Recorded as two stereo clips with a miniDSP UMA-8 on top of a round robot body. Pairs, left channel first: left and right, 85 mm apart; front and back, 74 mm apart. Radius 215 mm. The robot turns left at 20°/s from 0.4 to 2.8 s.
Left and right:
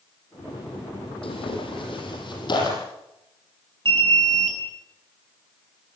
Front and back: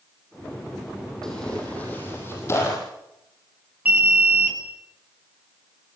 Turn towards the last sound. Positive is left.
turn(degrees=-110)